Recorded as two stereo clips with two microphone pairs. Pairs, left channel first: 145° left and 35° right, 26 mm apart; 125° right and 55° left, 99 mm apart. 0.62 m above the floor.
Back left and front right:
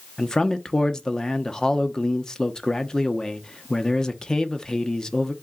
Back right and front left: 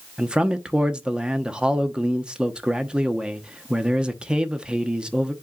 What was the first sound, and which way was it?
A man speaking, 120° left.